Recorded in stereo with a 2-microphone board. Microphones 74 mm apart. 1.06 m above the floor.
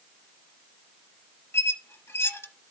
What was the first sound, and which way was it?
A squeak, 35° left (ahead or behind).